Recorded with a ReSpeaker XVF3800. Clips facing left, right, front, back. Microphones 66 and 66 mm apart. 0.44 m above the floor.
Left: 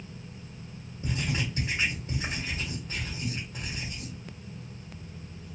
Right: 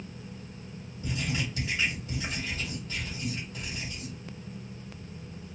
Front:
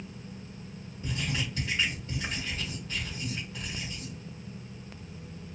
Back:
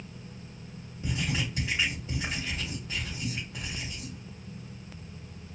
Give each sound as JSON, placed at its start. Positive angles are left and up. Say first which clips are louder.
{"t": 1.0, "sound": "writing", "louder": "left 1 dB, back 2 dB", "azimuth_deg": 115, "distance_m": 1.7}